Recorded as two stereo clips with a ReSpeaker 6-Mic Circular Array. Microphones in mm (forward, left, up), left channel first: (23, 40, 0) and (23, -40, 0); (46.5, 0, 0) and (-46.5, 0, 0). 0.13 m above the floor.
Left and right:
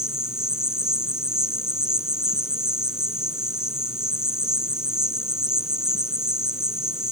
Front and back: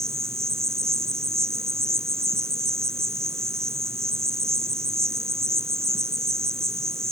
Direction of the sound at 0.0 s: 165° right.